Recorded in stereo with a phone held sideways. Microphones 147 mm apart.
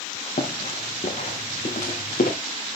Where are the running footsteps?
55° left (ahead or behind), 6.5 m; by 2.3 s 75° left (ahead or behind), 6 m.